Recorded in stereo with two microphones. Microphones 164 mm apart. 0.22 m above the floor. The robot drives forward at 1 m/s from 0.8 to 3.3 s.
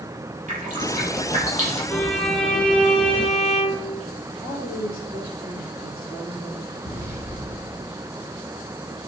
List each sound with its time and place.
0.5 s dripping: 50° right (ahead or behind), 6 m; by 1.8 s 45° right (ahead or behind), 7 m
1.9 s a violin: 5° left (ahead or behind), 1.2 m
4.4 s a woman speaking: 30° right (ahead or behind), 5.5 m
6.8 s an explosion: 15° right (ahead or behind), 5.5 m